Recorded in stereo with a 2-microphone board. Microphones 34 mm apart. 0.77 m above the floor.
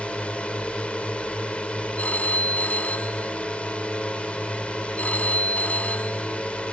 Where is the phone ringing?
55° left (ahead or behind).